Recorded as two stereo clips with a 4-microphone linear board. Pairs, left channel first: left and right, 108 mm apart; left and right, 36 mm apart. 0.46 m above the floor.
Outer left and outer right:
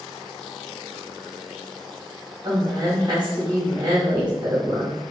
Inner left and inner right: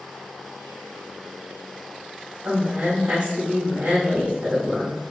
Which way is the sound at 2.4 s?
40° right (ahead or behind).